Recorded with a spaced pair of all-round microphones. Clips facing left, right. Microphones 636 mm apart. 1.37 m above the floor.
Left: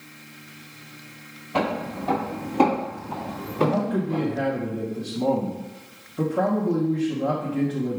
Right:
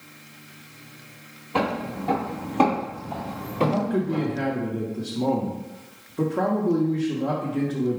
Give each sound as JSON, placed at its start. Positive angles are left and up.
{"t": 1.5, "sound": "footsteps", "side_deg": 10, "distance_m": 1.6}
{"t": 3.6, "sound": "a man speaking", "side_deg": 15, "distance_m": 0.8}